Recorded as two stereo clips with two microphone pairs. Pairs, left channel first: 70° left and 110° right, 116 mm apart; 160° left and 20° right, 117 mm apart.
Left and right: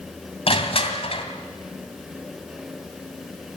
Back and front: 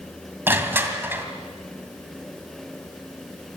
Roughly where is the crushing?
Ahead left.